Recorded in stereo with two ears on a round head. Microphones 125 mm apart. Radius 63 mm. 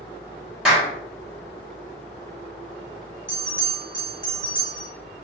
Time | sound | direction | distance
0.7 | a clap | 5° right (ahead or behind) | 1.2 m
3.3 | a bell | 20° right (ahead or behind) | 1.4 m